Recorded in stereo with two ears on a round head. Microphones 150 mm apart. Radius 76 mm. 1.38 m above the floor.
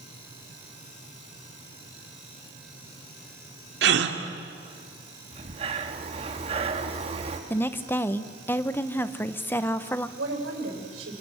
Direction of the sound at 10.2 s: 85° right.